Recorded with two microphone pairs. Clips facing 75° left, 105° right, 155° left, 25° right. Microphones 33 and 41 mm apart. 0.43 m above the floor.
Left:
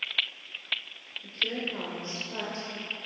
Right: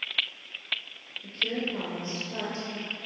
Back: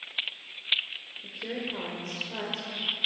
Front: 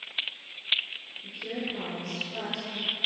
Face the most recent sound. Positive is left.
turn(degrees=150)